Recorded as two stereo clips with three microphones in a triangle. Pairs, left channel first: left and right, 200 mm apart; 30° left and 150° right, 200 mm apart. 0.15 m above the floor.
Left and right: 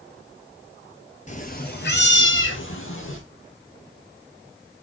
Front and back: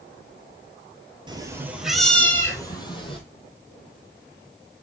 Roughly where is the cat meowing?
Behind left.